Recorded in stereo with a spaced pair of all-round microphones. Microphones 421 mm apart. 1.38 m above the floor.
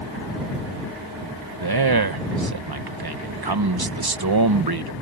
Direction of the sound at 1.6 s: 55° right (ahead or behind).